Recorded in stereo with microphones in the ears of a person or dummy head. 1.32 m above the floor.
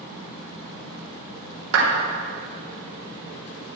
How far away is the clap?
About 3 m.